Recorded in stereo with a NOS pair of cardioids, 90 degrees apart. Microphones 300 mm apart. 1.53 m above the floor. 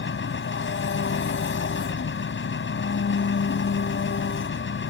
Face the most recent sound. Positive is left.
turn(degrees=40)